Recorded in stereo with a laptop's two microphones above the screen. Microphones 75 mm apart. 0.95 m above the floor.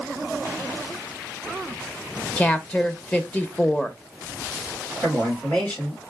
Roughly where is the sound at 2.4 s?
Centre.